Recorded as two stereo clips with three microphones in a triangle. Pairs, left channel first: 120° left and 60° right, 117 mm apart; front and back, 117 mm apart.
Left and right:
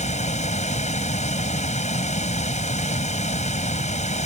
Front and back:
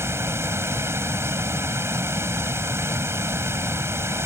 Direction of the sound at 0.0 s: 110° left.